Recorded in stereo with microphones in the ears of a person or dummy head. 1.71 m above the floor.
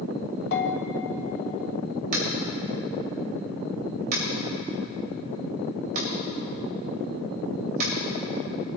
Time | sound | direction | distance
0.5 | a bell | 60° left (ahead or behind) | 1.6 m
2.1 | tapping | 50° right (ahead or behind) | 2.5 m